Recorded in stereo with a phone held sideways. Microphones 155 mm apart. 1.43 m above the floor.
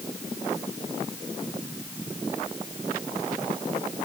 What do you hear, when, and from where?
Only background noise.